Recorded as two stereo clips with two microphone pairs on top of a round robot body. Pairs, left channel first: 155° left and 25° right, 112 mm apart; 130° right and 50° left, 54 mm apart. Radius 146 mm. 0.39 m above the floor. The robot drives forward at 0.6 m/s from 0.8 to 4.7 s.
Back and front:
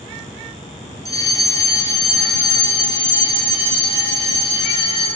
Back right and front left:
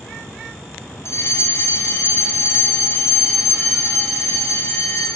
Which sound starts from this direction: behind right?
A fire alarm, at 1.1 s.